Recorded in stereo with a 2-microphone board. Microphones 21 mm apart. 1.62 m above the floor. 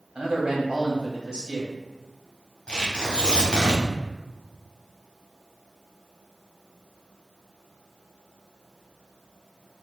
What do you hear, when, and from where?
0.1 s a man speaking: 45° right (ahead or behind), 1.7 m
2.7 s tearing paper: 40° left (ahead or behind), 1.2 m